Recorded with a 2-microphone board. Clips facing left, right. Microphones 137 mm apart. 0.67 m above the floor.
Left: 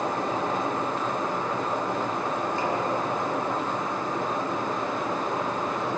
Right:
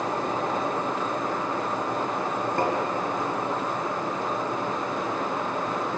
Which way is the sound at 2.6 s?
55° right (ahead or behind).